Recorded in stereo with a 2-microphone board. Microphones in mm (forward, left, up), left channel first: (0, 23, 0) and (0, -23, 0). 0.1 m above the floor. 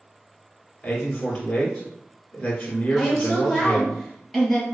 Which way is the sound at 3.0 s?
5° left (ahead or behind).